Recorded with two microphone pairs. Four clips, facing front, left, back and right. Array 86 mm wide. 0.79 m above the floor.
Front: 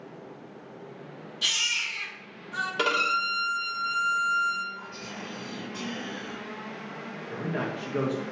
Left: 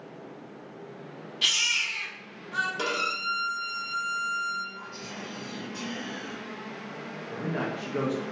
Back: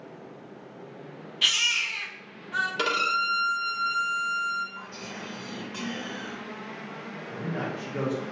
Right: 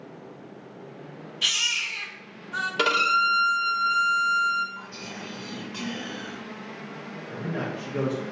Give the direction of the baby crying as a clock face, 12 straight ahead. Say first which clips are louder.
Even, back 4 dB; 7 o'clock.